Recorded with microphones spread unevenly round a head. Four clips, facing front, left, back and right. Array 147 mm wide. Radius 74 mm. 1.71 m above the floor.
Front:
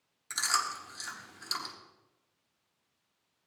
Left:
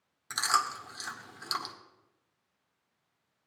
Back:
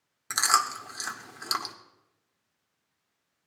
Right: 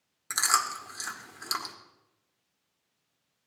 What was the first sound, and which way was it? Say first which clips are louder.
Chewing: right 1 dB, back 7 dB; 165° right.